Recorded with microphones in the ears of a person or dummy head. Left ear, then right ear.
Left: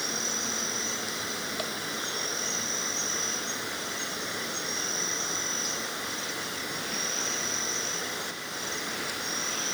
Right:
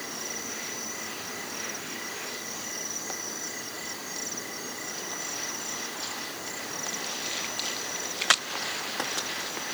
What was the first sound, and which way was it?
An insect, 60° left (ahead or behind).